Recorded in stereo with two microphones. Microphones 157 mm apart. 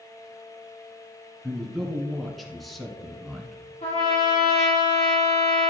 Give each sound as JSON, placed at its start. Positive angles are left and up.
{"t": 1.4, "sound": "a man speaking", "side_deg": 0, "distance_m": 1.7}
{"t": 3.8, "sound": "a trumpet", "side_deg": 50, "distance_m": 2.5}